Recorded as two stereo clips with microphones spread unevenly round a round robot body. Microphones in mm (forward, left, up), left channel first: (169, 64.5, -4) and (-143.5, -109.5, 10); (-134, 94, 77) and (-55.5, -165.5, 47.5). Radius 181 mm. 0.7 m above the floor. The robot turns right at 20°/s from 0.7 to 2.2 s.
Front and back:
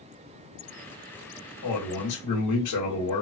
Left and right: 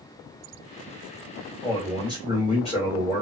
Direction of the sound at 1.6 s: 25° left.